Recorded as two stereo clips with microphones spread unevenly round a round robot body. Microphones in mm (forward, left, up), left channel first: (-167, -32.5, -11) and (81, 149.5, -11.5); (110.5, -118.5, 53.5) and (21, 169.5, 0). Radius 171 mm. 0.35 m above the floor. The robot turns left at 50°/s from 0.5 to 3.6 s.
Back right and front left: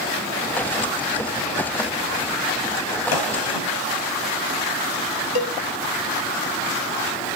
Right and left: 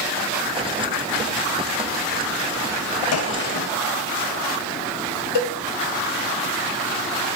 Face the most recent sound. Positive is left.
turn(degrees=-120)